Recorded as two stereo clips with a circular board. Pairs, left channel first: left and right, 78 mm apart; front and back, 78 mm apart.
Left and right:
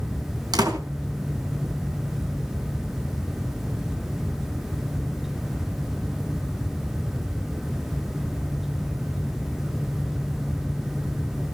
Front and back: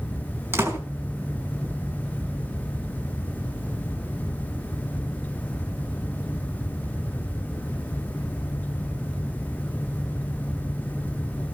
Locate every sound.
0.5 s a door slam: 120° right, 4 m